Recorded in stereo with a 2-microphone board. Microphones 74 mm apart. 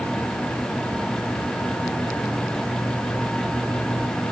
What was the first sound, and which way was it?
Only background noise.